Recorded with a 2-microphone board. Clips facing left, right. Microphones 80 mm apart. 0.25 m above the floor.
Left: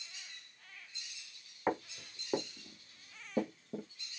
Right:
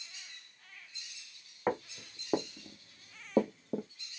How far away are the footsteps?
About 1.1 m.